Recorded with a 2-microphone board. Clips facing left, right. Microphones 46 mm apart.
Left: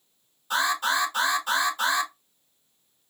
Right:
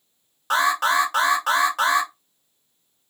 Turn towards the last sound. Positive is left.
turn(degrees=-70)  # may be behind; listen again after turning